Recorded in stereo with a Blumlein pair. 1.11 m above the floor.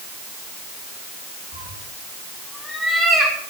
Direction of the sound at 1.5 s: 20° right.